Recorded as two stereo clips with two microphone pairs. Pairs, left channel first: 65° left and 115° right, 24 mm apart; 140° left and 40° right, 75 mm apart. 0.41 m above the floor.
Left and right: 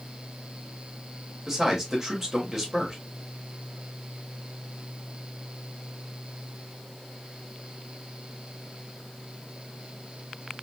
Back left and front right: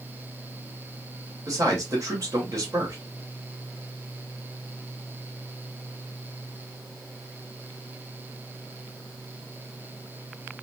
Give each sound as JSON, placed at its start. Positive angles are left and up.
{"t": 1.5, "sound": "a man speaking", "azimuth_deg": -45, "distance_m": 1.7}